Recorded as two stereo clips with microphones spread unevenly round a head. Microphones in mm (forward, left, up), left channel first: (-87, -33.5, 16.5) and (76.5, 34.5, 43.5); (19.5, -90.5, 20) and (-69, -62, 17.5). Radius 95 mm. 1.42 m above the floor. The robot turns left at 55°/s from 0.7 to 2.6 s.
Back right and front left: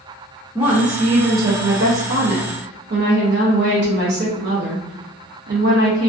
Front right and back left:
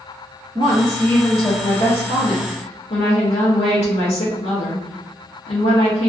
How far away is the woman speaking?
About 0.6 m.